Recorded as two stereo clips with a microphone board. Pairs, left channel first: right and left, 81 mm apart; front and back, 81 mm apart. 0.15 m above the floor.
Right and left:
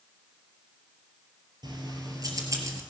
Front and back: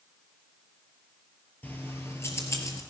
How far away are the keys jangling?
About 2.5 m.